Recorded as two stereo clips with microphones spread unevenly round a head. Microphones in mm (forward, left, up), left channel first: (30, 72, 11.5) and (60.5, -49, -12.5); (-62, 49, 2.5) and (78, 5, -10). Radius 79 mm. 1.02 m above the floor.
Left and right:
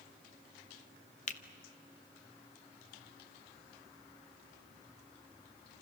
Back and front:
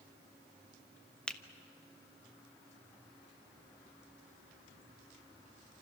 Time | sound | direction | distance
1.3 | a finger snap | 80° left | 1.2 m